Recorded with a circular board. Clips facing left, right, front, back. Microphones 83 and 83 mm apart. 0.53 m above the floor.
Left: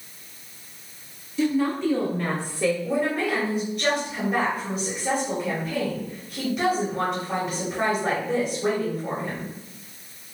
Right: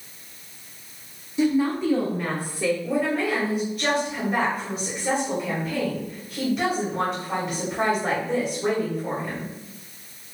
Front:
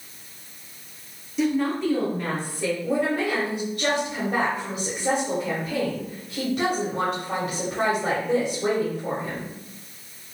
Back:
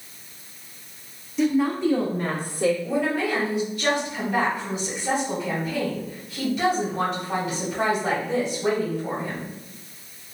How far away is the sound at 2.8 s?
About 2 m.